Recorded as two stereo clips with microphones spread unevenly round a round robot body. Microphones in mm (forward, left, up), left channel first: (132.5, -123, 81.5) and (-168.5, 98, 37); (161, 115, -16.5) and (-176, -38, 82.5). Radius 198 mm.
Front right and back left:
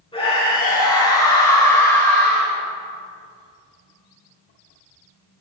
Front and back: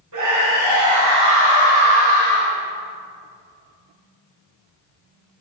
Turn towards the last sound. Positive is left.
turn(degrees=-125)